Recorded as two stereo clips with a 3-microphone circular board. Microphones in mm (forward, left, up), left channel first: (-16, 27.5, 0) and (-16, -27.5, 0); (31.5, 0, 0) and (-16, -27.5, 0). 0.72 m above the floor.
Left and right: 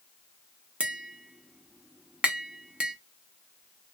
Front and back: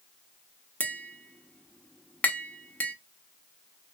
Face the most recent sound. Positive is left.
turn(degrees=-25)